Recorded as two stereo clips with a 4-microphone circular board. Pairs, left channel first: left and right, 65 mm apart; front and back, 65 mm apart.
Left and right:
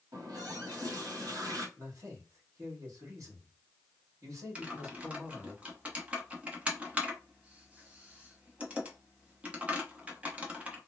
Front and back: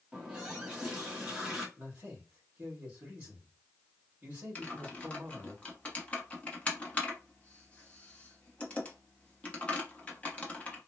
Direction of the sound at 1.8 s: 115° right.